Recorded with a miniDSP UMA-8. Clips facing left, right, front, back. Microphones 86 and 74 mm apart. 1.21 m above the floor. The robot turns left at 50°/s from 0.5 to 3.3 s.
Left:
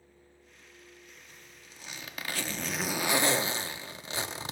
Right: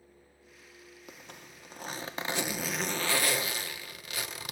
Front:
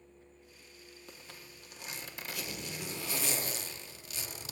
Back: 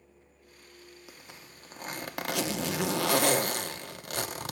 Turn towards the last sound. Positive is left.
turn(degrees=150)